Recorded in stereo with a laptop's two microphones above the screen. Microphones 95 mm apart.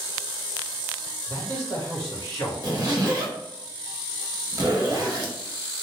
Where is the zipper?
45° right (ahead or behind), 0.8 m.